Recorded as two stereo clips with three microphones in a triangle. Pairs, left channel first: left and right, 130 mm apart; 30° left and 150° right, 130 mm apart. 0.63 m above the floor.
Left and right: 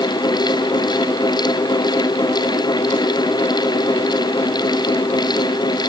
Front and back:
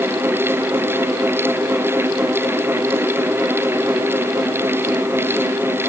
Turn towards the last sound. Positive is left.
No sound to turn to.